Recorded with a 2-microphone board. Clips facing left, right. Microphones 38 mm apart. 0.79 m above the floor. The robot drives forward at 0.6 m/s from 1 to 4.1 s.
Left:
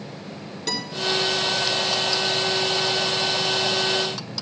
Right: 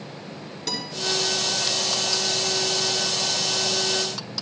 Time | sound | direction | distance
0.7 | a guitar | 5° left (ahead or behind) | 2.5 m